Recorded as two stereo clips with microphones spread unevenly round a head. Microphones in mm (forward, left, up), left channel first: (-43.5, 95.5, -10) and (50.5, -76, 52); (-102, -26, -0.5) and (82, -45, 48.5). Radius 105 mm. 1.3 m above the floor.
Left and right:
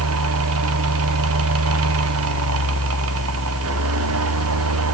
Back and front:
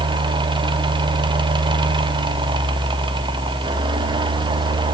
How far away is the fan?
About 1.4 m.